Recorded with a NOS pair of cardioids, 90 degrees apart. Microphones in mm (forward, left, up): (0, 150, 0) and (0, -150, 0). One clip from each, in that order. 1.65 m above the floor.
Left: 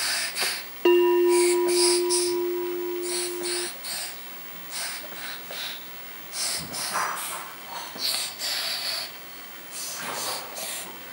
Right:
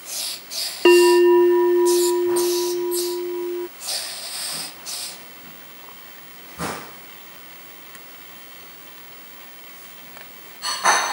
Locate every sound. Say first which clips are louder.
0.8 s a bell: right 6 dB; 50° right